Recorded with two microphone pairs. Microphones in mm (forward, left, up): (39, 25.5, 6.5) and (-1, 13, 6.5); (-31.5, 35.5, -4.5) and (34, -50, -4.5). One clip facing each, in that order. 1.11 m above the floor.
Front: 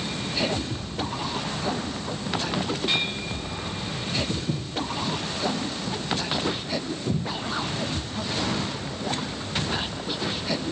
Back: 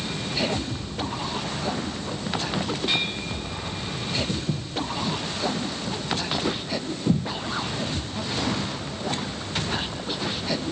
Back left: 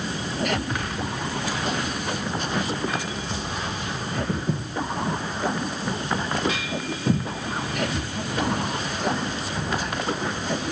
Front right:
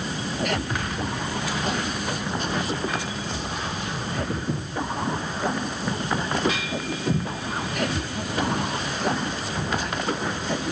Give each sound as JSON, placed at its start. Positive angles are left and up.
{"t": 4.3, "sound": "footsteps", "azimuth_deg": 140, "distance_m": 2.0}